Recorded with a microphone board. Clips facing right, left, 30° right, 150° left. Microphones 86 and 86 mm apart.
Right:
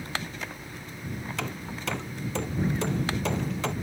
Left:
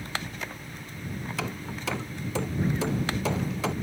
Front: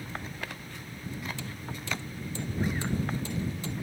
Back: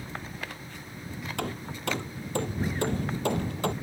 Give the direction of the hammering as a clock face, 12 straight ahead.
6 o'clock.